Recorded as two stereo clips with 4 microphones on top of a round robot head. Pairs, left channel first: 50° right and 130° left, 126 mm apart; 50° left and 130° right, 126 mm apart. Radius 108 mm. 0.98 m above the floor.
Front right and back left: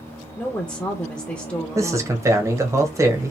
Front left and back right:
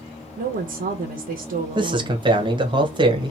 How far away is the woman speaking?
About 0.6 m.